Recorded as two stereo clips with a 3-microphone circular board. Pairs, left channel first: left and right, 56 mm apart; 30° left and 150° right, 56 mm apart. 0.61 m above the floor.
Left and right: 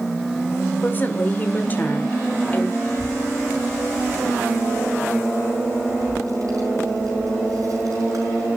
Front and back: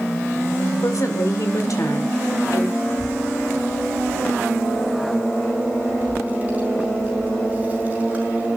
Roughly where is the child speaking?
Right.